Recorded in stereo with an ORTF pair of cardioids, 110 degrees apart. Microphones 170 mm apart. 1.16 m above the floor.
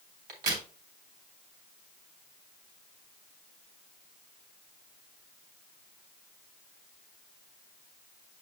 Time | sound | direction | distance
0.3 | a crack | 65° right | 3 m